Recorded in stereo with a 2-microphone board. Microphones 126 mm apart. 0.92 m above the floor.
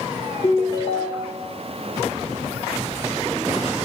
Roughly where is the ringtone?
Left.